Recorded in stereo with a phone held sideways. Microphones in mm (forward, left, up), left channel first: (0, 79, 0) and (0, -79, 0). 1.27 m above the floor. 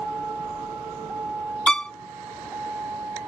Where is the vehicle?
5° right (ahead or behind); by 3.3 s 15° right (ahead or behind).